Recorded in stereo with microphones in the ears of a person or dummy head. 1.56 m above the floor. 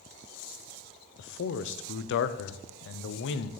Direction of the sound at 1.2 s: 65° left (ahead or behind).